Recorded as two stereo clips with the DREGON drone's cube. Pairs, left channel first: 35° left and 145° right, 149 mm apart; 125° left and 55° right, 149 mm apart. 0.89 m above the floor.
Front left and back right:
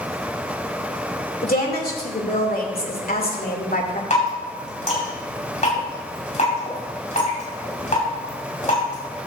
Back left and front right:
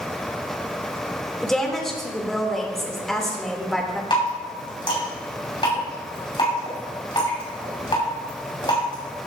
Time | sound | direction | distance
1.4 | a woman speaking | 35° left | 2.5 m
4.1 | dripping | 70° left | 4.5 m